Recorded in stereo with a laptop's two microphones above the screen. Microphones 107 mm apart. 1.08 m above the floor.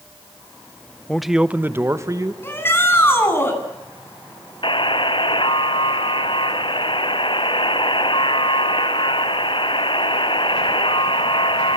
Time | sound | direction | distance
1.1 | a man speaking | 10° left (ahead or behind) | 0.8 m
2.4 | a shout | 25° left (ahead or behind) | 9.5 m
4.6 | a buzzer | 55° left (ahead or behind) | 1.6 m